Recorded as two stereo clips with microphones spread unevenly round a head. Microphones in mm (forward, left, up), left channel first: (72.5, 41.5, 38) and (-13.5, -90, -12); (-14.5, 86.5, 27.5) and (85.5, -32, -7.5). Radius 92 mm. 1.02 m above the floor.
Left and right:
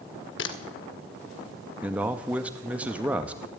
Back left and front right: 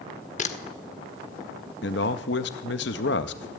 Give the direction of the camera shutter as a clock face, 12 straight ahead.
9 o'clock.